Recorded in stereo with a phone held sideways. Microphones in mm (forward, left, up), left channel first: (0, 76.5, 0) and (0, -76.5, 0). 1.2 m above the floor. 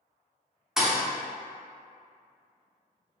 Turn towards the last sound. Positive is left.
turn(degrees=-5)  # may be behind; listen again after turning